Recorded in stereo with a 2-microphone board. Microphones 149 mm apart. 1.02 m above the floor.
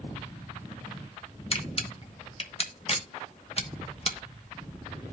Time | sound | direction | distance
1.5 | a camera shutter | 40° left (ahead or behind) | 1.1 m